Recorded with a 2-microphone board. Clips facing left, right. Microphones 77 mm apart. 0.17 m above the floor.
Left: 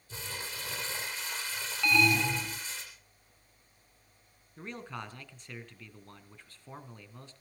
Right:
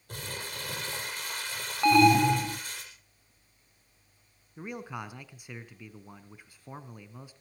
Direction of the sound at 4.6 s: 10° right (ahead or behind).